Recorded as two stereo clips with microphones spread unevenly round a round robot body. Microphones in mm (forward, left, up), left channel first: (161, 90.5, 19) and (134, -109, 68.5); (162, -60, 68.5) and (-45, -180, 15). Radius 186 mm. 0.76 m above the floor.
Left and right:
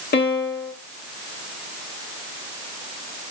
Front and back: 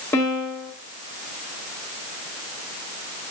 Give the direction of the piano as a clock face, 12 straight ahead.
8 o'clock.